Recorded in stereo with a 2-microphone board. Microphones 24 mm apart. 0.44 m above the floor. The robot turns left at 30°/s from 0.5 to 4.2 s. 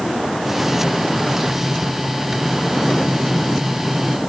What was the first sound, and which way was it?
Only background noise.